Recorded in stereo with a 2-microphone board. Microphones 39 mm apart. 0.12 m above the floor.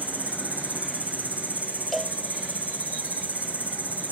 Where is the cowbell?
Centre (ahead or behind), 0.6 m.